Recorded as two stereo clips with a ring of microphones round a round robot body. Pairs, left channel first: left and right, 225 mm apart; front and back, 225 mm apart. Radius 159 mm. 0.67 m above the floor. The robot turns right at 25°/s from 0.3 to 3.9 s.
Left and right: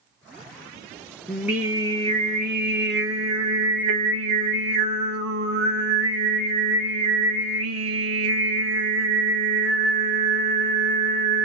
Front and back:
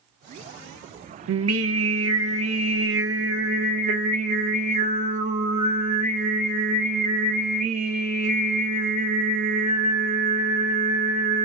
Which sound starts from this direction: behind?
Singing, at 1.3 s.